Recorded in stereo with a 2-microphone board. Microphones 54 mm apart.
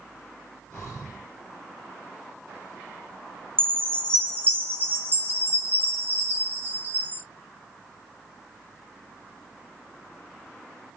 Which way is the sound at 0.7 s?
20° left (ahead or behind).